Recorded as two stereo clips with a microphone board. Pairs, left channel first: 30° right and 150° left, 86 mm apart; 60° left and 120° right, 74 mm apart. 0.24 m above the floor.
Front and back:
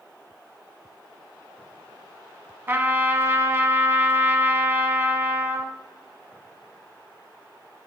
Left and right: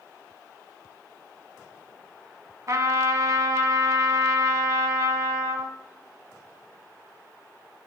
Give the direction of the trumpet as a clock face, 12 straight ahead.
5 o'clock.